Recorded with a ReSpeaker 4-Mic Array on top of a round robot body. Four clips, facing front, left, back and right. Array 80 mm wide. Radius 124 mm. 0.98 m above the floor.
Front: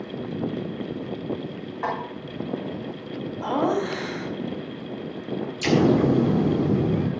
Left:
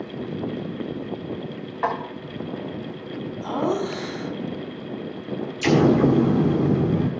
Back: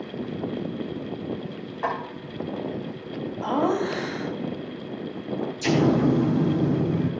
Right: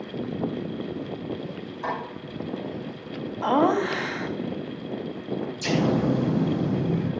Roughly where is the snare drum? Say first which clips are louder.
Left 5 dB, even; left.